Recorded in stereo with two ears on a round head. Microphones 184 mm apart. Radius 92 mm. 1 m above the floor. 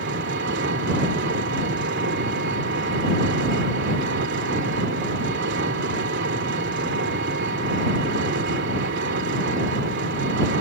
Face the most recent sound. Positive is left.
turn(degrees=-60)  # may be behind; listen again after turning